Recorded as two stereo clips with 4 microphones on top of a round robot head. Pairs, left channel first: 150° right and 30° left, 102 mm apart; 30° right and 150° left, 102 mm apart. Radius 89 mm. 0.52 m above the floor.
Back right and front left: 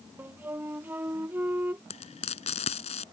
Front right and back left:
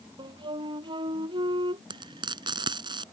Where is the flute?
105° left.